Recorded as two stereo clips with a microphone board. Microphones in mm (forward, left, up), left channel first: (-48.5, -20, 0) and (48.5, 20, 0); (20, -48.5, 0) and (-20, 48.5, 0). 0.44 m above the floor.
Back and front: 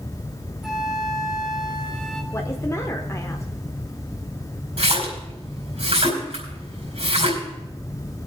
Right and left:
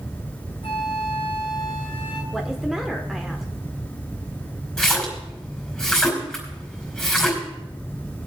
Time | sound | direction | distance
0.6 | a flute | 70° right | 1.7 m
2.3 | a woman speaking | 165° right | 1.0 m
4.8 | a splash | 20° left | 4.5 m